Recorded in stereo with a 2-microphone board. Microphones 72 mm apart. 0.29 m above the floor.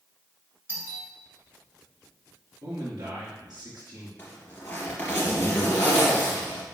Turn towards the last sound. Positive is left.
turn(degrees=30)  # may be behind; listen again after turning